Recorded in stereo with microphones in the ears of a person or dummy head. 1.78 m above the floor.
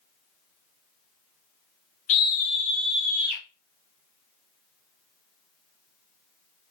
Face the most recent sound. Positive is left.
turn(degrees=-55)  # may be behind; listen again after turning